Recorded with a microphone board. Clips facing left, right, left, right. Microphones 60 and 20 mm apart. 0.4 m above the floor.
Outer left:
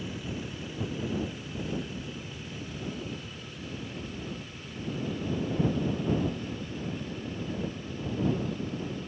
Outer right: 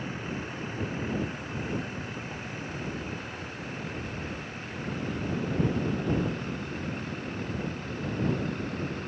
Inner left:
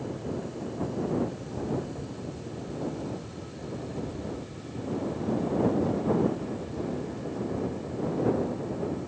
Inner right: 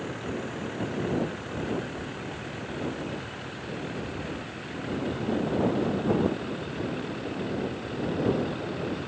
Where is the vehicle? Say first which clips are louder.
Outer right 2 dB, inner right 1 dB; 45° right (ahead or behind); by 9.1 s 60° right (ahead or behind).